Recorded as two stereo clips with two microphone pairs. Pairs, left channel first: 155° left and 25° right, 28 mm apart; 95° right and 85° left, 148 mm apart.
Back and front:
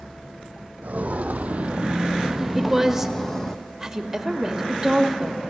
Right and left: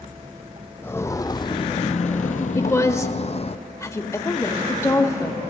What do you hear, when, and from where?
0.8 s footsteps: 20° right, 0.8 m; by 3.6 s 140° right, 1.0 m
2.6 s a woman speaking: 80° right, 0.9 m